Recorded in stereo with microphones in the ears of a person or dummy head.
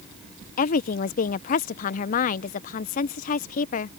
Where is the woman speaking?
50° left (ahead or behind).